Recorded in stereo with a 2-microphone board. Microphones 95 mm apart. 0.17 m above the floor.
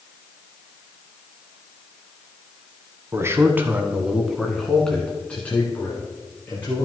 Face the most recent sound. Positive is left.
turn(degrees=25)  # may be behind; listen again after turning